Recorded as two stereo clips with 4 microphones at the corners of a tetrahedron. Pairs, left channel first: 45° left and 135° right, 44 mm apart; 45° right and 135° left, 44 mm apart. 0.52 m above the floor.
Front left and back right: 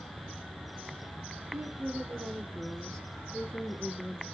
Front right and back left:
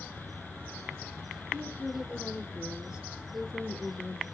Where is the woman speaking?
160° right, 1.4 m; by 4.2 s 40° left, 1.4 m.